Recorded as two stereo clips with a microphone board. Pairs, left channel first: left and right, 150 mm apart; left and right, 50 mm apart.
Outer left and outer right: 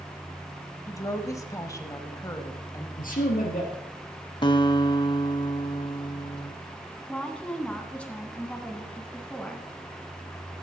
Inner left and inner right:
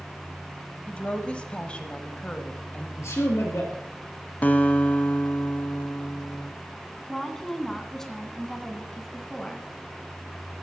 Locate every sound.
0.9 s a woman speaking: 20° left (ahead or behind), 1.2 m
3.0 s a man speaking: 70° left (ahead or behind), 3.5 m
4.4 s a guitar: 30° left (ahead or behind), 0.9 m
7.1 s a woman speaking: 10° left (ahead or behind), 1.9 m